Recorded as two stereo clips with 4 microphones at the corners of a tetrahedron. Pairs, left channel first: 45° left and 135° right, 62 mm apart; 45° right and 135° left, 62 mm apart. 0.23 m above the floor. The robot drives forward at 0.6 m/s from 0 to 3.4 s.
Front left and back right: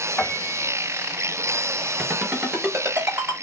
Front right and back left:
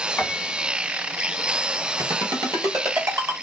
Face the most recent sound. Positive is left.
turn(degrees=160)